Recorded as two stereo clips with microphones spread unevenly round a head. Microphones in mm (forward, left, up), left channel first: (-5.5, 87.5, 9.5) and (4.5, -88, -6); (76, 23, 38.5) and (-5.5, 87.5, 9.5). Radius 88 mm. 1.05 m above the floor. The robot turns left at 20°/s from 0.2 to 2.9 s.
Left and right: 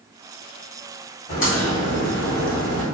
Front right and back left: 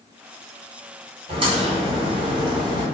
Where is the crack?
140° left, 1.4 m; by 2.9 s 110° left, 1.4 m.